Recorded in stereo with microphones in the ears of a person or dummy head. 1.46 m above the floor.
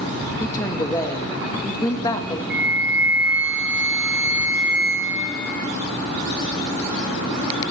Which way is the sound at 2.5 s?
5° right (ahead or behind).